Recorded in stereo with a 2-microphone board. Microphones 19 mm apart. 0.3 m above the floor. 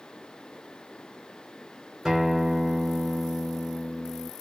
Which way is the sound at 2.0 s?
35° right (ahead or behind).